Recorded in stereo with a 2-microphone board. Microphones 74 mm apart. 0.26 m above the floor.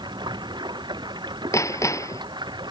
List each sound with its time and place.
0.0 s running water: 80° right
1.5 s hammering: 45° left (ahead or behind)